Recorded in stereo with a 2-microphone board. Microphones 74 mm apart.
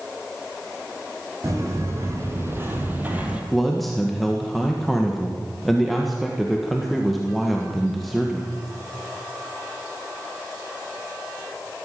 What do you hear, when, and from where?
1.4 s footsteps: 40° right (ahead or behind), 3.5 m; by 3.4 s 15° right (ahead or behind), 2 m
3.5 s a man speaking: centre (ahead or behind), 1.5 m